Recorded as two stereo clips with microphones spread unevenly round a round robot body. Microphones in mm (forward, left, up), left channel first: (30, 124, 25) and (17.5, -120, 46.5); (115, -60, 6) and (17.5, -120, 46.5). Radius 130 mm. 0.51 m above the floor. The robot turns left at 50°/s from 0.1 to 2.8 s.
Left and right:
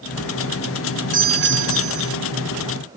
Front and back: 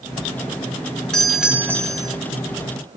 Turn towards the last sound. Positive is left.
turn(degrees=-120)